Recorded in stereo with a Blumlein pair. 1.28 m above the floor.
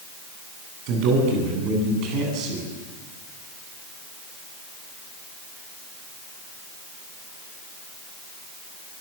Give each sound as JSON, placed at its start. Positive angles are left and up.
{"t": 0.9, "sound": "a man speaking", "azimuth_deg": -40, "distance_m": 9.5}